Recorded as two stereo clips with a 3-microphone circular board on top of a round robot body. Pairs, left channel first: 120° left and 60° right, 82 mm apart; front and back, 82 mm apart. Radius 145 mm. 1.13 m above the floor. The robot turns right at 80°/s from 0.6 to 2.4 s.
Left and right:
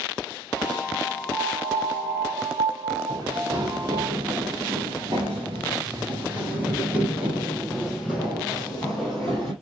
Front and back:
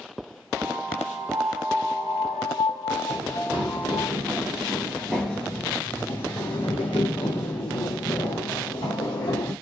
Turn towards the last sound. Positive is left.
turn(degrees=40)